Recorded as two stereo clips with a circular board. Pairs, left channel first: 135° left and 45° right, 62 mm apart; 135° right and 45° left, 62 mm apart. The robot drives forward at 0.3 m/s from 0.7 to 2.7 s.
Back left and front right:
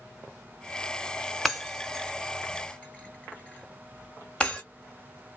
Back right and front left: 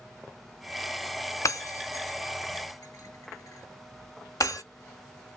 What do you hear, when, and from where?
1.4 s breaking glass: 135° right, 0.7 m; by 4.6 s 150° right, 1.0 m